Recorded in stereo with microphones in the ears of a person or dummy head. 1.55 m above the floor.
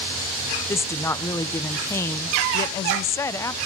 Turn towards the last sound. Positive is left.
turn(degrees=15)  # may be behind; listen again after turning